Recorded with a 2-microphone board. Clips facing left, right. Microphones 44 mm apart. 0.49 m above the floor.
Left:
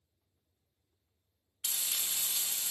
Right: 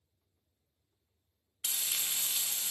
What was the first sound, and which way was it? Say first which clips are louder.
Frying: right 1 dB; 40° right (ahead or behind).